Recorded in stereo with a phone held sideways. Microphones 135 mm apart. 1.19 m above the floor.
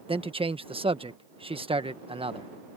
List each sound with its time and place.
0.1 s a man speaking: 45° right (ahead or behind)